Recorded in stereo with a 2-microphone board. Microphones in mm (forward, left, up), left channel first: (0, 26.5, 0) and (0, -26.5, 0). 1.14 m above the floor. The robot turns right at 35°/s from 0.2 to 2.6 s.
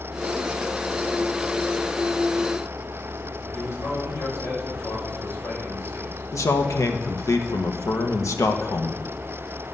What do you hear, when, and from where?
3.5 s a man speaking: 55° left (ahead or behind), 6.5 m
6.3 s a man speaking: 75° left (ahead or behind), 1.1 m